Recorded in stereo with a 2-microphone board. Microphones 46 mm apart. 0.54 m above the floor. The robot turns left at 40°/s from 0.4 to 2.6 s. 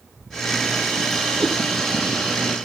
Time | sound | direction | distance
1.4 | a cat meowing | 85° right | 8 m